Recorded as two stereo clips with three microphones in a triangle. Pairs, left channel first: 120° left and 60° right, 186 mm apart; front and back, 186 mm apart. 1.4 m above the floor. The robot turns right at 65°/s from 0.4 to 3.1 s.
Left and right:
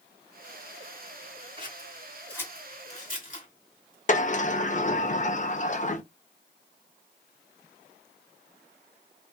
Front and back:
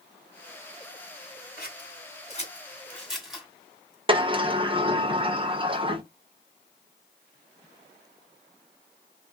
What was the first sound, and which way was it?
Scissors, 10° right.